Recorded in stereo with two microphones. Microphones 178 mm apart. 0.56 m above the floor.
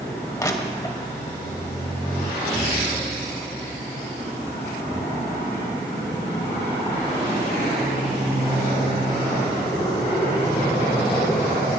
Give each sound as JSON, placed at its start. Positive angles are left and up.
{"t": 0.4, "sound": "crushing", "side_deg": 20, "distance_m": 0.9}